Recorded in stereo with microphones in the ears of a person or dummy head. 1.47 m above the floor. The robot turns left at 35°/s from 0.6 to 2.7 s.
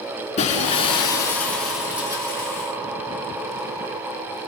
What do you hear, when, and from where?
0.4 s breaking glass: 40° left, 3.5 m; by 2.5 s 30° right, 3.5 m